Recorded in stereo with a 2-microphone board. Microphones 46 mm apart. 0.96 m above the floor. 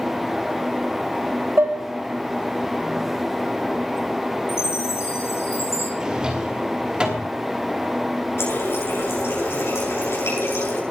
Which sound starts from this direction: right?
Dishes clattering, at 1.6 s.